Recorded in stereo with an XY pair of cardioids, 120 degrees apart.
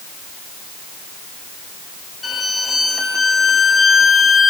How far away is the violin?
About 2 m.